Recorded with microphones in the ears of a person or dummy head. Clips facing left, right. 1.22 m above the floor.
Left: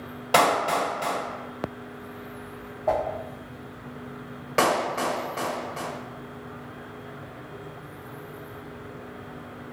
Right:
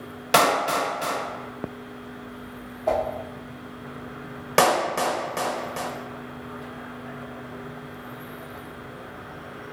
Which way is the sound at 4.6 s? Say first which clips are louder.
Right 3 dB; 50° right (ahead or behind).